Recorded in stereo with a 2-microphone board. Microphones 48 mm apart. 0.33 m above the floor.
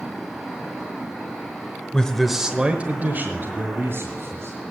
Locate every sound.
1.9 s a man speaking: 20° left (ahead or behind), 1.0 m; by 4.6 s 65° right (ahead or behind), 2.5 m